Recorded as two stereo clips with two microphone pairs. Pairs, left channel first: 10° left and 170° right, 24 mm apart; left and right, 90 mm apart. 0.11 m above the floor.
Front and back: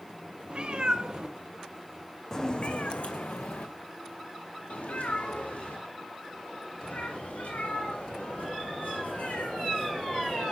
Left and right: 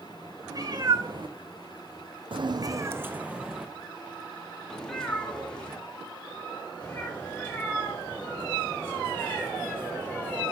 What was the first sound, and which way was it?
A cat meowing, 135° right.